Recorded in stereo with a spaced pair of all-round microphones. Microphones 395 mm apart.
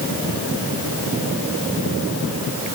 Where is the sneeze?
I don't hear a sneeze.